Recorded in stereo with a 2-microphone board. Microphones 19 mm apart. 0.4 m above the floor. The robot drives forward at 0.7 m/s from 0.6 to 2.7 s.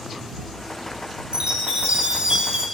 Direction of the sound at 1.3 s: 85° right.